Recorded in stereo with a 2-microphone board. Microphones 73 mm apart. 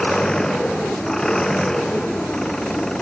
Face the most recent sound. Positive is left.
turn(degrees=5)  # may be behind; listen again after turning